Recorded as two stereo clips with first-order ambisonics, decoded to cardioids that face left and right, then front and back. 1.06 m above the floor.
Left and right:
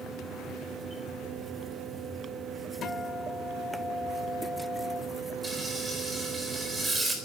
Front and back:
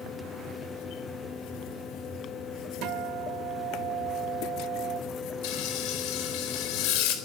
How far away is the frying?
About 3.5 m.